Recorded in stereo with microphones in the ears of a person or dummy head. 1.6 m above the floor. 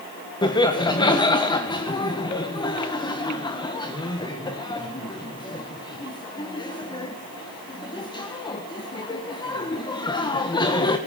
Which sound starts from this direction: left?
Laughter, at 0.4 s.